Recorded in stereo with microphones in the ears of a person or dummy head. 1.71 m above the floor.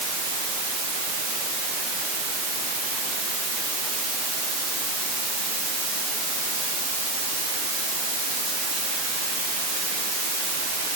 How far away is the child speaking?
No child speaking in this recording.